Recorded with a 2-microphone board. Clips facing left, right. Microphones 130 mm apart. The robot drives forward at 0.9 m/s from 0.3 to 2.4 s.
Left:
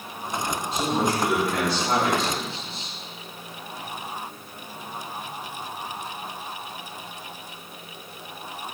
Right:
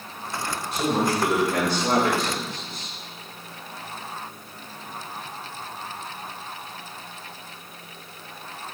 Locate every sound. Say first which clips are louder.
0.7 s a man speaking: right 2 dB; 75° right (ahead or behind), 2.5 m; by 3.0 s 55° right (ahead or behind), 3 m